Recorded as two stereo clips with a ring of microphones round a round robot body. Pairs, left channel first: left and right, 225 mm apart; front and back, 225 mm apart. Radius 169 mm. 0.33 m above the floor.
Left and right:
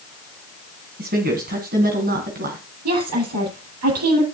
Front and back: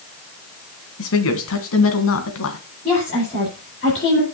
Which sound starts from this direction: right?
A woman speaking, at 2.9 s.